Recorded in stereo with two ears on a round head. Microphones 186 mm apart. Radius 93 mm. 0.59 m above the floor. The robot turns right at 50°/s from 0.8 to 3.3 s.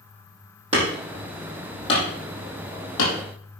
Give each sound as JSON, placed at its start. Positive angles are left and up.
{"t": 0.7, "sound": "hammering", "side_deg": -30, "distance_m": 5.0}